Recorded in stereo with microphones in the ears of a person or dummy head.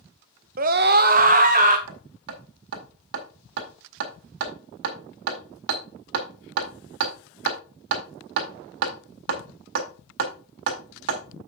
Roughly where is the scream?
Right.